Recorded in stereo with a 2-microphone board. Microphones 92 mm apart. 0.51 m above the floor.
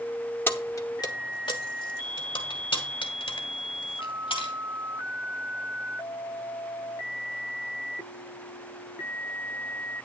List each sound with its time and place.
0.5 s keys jangling: 20° left (ahead or behind), 0.8 m; by 4.5 s 70° left (ahead or behind), 3.5 m